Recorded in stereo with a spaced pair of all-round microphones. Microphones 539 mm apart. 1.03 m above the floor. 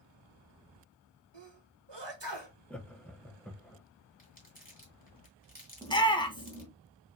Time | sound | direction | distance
1.3 | a sneeze | 50° right (ahead or behind) | 1.3 m
2.7 | laughter | centre (ahead or behind) | 0.5 m
4.2 | crumpling | 15° left (ahead or behind) | 1.5 m
5.8 | a shout | 10° left (ahead or behind) | 0.8 m